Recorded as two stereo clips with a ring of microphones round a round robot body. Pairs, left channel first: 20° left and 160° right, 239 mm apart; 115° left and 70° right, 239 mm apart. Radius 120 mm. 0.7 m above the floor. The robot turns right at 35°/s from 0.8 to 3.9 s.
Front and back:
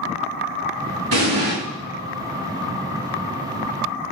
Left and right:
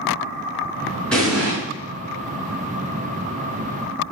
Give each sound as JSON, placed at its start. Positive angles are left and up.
{"t": 1.1, "sound": "an explosion", "azimuth_deg": -160, "distance_m": 4.5}